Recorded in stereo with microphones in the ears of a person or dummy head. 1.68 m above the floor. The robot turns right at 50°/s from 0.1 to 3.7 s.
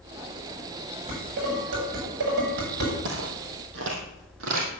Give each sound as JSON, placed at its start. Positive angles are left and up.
{"t": 1.1, "sound": "dishes clattering", "side_deg": -35, "distance_m": 7.5}
{"t": 3.0, "sound": "footsteps", "side_deg": -60, "distance_m": 3.5}